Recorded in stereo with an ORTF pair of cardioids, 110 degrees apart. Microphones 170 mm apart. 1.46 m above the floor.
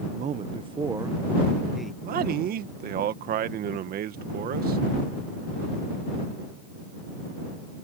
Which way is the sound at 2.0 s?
60° right.